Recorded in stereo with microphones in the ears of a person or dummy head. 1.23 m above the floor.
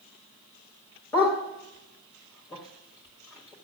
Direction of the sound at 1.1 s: 15° left (ahead or behind).